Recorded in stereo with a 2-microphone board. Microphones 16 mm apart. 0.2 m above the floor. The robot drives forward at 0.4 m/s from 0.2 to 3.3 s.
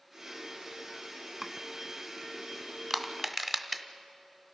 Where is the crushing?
20° right (ahead or behind), 1.1 m.